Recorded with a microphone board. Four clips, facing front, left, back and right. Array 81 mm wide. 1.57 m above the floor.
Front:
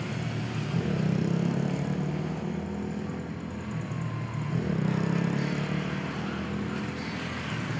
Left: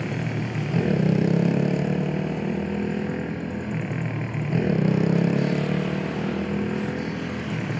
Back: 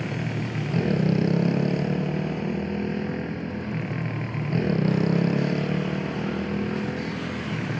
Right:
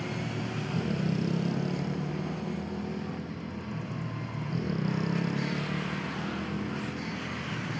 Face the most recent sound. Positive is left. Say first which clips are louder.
# left 6 dB, back 4 dB
turn(degrees=115)